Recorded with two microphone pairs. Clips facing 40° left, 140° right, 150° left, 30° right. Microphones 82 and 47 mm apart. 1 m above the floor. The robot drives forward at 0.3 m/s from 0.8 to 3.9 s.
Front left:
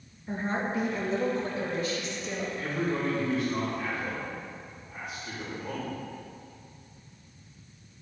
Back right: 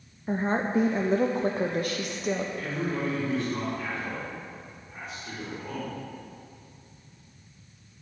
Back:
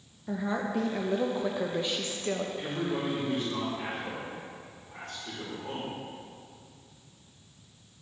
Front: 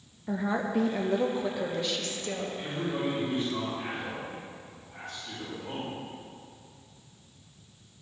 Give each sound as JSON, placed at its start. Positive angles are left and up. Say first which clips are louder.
{"t": 0.3, "sound": "a woman speaking", "louder": "back right 4 dB, front 2 dB", "azimuth_deg": -110, "distance_m": 0.5}
{"t": 2.6, "sound": "a man speaking", "louder": "even, even", "azimuth_deg": 130, "distance_m": 3.5}